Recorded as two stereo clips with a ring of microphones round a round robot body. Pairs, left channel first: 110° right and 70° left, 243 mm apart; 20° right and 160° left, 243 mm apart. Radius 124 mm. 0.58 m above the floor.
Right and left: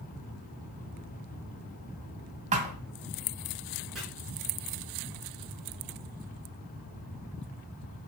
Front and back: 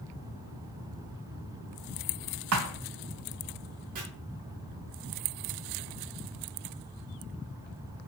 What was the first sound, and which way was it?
A thud, 130° left.